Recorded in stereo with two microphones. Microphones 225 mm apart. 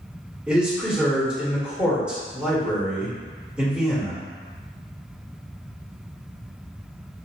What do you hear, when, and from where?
0.5 s a man speaking: 5° right (ahead or behind), 1.1 m